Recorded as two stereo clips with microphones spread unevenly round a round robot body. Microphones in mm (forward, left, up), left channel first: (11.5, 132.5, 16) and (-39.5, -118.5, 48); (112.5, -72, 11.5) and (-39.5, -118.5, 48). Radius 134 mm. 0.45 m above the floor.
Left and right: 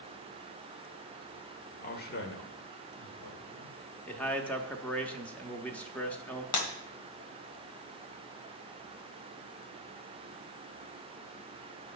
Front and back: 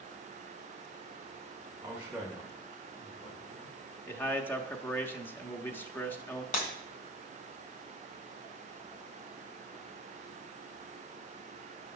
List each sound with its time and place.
1.8 s a man speaking: 115° left, 1.5 m; by 3.8 s 75° left, 3 m
4.1 s a man speaking: 20° left, 1.0 m
6.5 s breaking glass: 65° left, 1.5 m